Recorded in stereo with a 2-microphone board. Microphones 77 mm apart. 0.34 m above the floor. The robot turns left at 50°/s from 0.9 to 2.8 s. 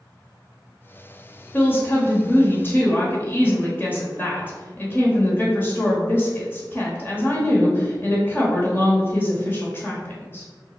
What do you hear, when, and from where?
1.5 s a woman speaking: 125° left, 1.0 m; by 10.5 s 60° left, 1.0 m